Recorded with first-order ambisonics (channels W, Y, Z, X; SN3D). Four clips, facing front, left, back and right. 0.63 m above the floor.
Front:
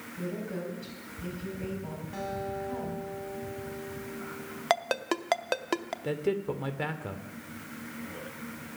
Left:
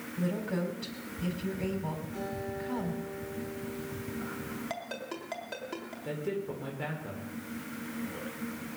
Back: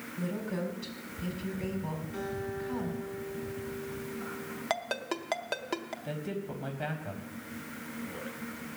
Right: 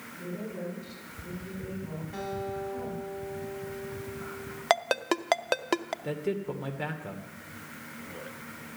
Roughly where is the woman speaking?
Left.